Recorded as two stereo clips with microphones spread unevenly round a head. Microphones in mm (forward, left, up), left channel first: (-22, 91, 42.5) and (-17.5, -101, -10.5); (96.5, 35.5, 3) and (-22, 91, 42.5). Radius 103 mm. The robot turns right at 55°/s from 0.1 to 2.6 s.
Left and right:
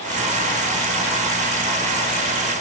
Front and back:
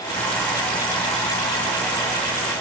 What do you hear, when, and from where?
Only background noise.